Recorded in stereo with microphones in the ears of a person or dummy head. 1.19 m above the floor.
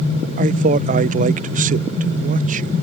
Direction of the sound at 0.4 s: 40° right (ahead or behind).